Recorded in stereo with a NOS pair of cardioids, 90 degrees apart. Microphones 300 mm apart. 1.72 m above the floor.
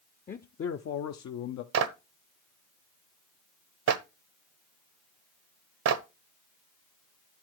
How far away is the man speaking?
About 0.7 m.